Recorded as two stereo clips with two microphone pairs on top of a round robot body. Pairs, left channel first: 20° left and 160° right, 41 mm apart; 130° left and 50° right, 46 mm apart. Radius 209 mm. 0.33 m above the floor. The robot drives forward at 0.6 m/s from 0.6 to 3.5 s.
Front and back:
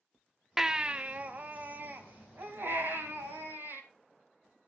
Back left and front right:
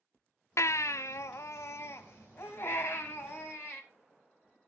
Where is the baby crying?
115° left, 0.6 m; by 3.8 s 165° left, 2 m.